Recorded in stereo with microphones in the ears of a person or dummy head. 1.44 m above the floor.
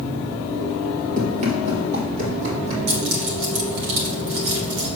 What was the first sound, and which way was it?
Running footsteps, 40° right (ahead or behind).